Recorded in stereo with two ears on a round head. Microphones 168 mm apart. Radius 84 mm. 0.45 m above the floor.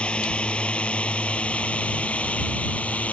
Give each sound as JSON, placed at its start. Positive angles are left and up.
{"t": 0.0, "sound": "a drone", "side_deg": 5}